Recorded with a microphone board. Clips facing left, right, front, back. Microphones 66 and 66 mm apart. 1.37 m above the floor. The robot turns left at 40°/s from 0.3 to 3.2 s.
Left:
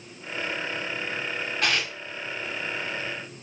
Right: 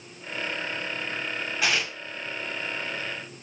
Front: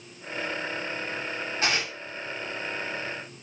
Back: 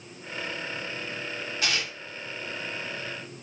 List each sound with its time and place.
1.6 s tearing paper: 10° right, 1.4 m; by 1.9 s 25° right, 1.4 m